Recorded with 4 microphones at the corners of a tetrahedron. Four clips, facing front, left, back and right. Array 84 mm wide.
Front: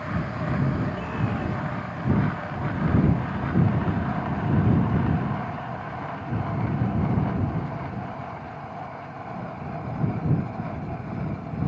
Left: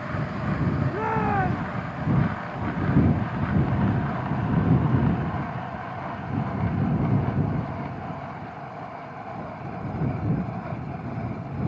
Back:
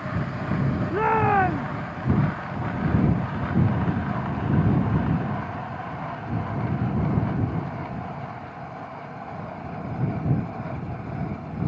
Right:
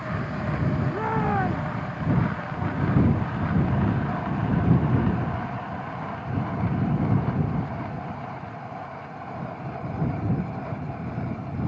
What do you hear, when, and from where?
0.9 s a shout: 175° left